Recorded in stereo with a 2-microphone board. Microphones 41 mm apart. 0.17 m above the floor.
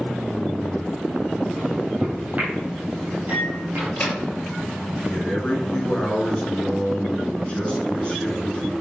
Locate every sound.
1.6 s a microwave: 35° right (ahead or behind), 4.5 m
3.8 s a microwave: 40° left (ahead or behind), 3.5 m
5.1 s a man speaking: 25° left (ahead or behind), 2.5 m